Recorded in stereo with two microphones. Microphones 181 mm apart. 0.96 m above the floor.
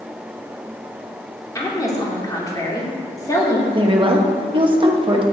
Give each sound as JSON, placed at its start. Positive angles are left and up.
{"t": 1.6, "sound": "a woman speaking", "side_deg": 20, "distance_m": 2.0}
{"t": 3.7, "sound": "a woman speaking", "side_deg": -30, "distance_m": 1.2}